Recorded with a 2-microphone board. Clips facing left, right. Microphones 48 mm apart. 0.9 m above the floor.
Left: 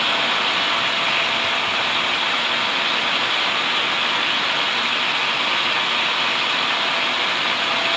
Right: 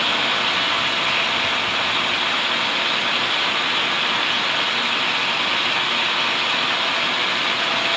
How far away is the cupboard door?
No cupboard door in this recording.